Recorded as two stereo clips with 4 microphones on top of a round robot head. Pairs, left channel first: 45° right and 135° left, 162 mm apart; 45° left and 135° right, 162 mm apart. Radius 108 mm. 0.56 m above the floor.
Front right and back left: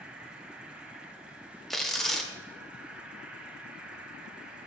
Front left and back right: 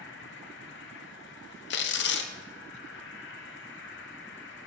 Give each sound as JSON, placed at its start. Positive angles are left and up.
{"t": 0.0, "sound": "an insect", "azimuth_deg": 50, "distance_m": 1.1}
{"t": 1.7, "sound": "tearing paper", "azimuth_deg": 40, "distance_m": 0.9}